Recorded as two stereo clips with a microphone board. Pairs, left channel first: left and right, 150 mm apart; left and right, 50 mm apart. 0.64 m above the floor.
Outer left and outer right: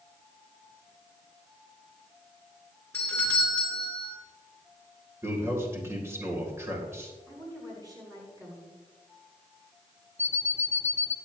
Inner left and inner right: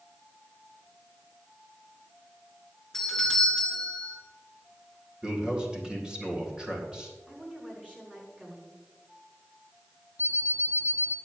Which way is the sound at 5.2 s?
20° right (ahead or behind).